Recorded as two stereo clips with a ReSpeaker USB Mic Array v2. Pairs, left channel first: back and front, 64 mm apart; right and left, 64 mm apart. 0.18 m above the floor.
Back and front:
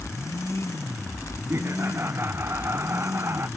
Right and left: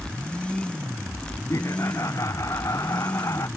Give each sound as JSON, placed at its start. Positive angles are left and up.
{"t": 1.5, "sound": "laughter", "azimuth_deg": -50}